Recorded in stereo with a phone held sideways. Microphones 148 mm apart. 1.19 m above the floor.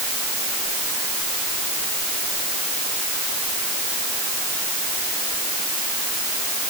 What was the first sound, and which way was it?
Only background noise.